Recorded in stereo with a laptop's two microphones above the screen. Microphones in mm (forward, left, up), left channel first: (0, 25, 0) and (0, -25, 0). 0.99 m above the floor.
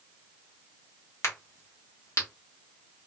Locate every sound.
1.2 s a crack: 70° left (ahead or behind), 1.0 m